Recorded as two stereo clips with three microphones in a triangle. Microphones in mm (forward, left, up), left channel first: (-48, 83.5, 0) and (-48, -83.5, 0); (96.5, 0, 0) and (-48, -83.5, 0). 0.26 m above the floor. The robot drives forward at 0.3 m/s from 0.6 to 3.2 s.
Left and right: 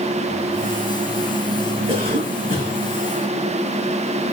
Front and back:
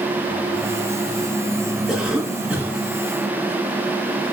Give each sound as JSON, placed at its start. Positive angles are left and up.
{"t": 1.9, "sound": "a cough", "azimuth_deg": -60, "distance_m": 2.0}